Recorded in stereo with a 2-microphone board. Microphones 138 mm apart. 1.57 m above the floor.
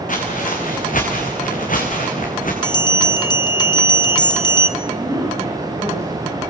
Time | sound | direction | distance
0.1 | footsteps | 70° left (ahead or behind) | 5.5 m
2.6 | a bell | 30° left (ahead or behind) | 1.0 m
4.8 | a woman speaking | 25° right (ahead or behind) | 9 m